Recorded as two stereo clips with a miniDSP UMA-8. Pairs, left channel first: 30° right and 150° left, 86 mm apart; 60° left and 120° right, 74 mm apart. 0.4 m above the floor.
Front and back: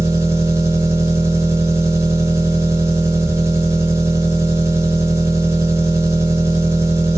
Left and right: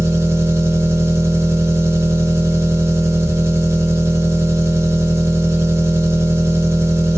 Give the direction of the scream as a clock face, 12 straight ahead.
I don't hear a scream.